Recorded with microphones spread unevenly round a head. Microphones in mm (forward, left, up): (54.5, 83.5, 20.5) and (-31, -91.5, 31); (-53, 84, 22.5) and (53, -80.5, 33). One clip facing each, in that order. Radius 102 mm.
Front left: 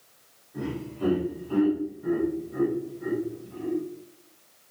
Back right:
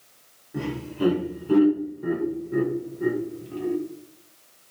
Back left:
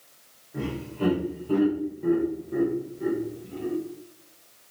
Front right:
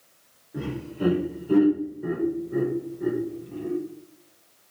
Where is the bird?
No bird in this recording.